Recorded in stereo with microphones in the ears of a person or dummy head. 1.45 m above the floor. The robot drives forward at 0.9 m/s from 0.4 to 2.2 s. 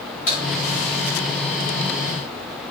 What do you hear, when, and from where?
0.3 s a crack: 25° left (ahead or behind), 1.4 m